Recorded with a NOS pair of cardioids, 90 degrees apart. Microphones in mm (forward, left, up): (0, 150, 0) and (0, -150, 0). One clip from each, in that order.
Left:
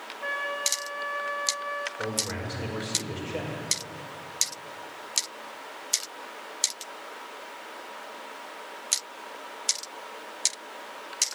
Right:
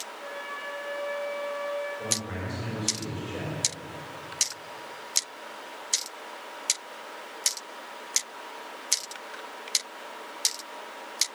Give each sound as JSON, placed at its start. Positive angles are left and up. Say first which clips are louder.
{"t": 0.2, "sound": "a flute", "louder": "left 8 dB", "azimuth_deg": 65, "distance_m": 1.3}
{"t": 2.0, "sound": "a man speaking", "louder": "left 1 dB", "azimuth_deg": 45, "distance_m": 5.5}